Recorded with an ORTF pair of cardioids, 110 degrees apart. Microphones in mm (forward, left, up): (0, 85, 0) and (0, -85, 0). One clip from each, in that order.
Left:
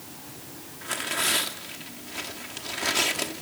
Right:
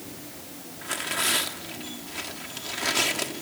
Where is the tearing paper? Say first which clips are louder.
Even; 5° left, 2 m.